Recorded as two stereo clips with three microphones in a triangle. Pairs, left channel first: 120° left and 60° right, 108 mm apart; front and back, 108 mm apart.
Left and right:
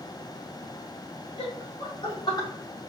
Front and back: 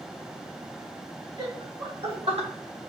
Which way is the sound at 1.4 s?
150° left.